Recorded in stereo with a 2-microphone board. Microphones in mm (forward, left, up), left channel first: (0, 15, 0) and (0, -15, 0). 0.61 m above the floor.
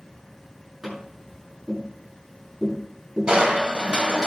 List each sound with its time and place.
0.8 s tapping: 15° right (ahead or behind), 7.5 m
3.3 s crushing: 30° right (ahead or behind), 2 m